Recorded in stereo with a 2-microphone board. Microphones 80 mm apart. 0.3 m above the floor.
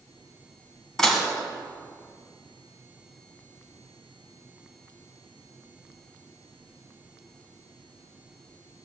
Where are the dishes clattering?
5° left (ahead or behind), 1.7 m.